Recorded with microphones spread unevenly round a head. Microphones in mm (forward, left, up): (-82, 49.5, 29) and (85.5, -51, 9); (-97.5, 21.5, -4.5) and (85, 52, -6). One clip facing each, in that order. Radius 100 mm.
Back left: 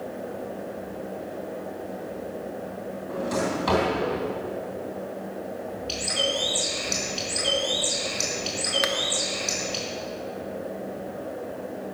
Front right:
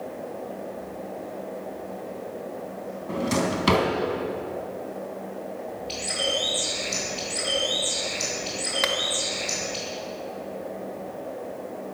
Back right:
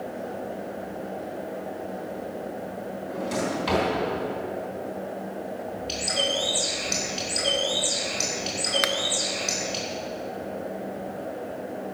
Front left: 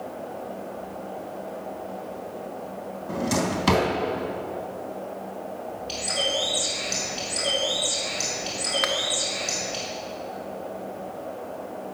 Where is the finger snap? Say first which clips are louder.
Even, front left 2 dB; 145° right, 0.9 m.